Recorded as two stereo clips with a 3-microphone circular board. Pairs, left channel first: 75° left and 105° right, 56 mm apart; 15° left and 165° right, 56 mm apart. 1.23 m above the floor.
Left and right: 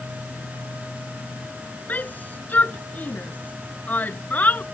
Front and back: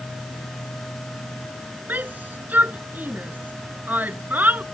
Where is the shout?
135° left.